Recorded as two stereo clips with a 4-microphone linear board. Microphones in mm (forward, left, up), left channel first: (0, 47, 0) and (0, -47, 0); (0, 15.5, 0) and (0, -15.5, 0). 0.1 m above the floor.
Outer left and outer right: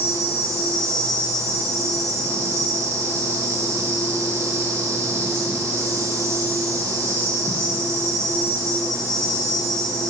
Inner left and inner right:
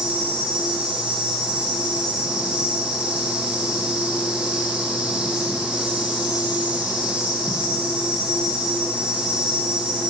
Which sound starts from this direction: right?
An insect, at 0.0 s.